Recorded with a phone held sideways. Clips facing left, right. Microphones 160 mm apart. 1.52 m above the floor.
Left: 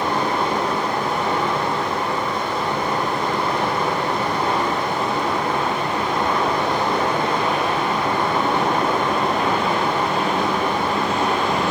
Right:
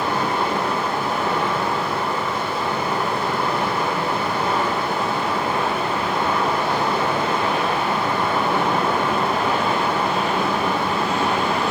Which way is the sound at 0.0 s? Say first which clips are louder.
Left 1 dB; 5° right (ahead or behind).